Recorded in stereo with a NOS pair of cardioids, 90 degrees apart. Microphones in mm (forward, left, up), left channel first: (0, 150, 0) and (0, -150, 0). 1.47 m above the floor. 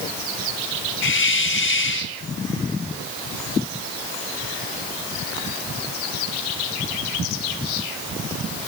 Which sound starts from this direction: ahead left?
A hiss, at 1.0 s.